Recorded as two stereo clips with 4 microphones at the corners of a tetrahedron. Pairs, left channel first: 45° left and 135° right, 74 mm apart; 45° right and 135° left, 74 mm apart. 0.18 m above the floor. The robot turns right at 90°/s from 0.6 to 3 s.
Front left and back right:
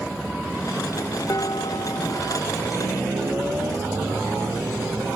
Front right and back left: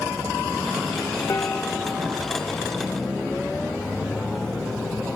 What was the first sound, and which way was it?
Dishes clattering, 5° left.